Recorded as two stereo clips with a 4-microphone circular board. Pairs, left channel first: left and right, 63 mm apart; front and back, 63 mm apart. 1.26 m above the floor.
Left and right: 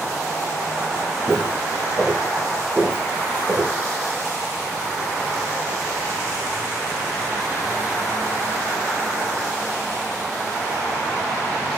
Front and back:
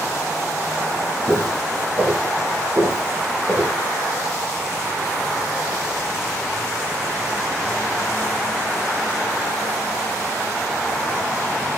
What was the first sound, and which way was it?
Footsteps, 175° left.